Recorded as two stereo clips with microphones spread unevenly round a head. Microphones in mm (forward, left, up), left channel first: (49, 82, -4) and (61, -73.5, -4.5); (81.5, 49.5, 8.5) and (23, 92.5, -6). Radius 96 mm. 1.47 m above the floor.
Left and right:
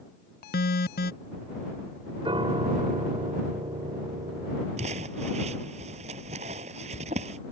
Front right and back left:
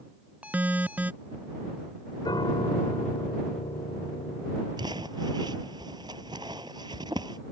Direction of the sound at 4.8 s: 145° right.